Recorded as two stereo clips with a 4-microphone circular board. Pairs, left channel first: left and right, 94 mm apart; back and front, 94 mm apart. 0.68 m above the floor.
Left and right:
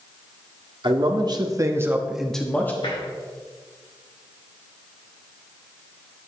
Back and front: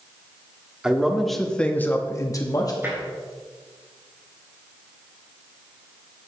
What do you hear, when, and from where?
0.8 s a man speaking: 80° right, 1.6 m; by 2.7 s 150° left, 1.3 m
2.8 s tapping: 60° left, 3.5 m